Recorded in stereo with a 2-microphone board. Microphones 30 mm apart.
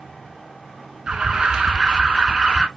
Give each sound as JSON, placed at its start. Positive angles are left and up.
{"t": 1.1, "sound": "an alarm", "side_deg": -35, "distance_m": 1.0}